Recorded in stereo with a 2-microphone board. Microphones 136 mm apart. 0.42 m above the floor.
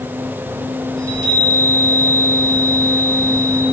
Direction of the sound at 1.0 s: 25° right (ahead or behind).